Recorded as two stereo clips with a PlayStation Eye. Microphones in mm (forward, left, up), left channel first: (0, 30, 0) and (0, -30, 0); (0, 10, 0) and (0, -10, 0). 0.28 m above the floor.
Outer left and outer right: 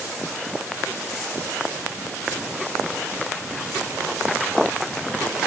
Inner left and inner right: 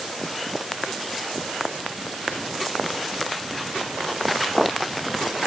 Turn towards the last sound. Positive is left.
No sound to turn to.